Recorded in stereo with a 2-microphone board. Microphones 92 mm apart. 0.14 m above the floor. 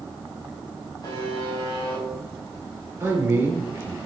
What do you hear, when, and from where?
1.0 s a buzzer: 40° left (ahead or behind), 4 m
3.0 s a man speaking: 25° right (ahead or behind), 2.5 m